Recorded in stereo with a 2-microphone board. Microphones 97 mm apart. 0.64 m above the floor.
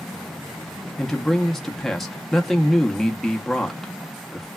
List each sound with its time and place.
1.0 s a man speaking: 5° left (ahead or behind), 0.5 m